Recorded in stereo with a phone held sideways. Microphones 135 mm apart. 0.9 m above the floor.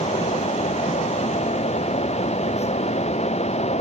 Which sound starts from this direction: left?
A fan, at 0.0 s.